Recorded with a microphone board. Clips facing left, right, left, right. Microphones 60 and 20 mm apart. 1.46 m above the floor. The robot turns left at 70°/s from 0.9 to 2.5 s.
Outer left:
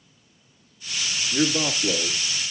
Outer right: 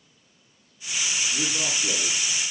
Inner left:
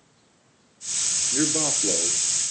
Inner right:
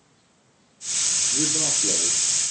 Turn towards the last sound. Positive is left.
turn(degrees=-5)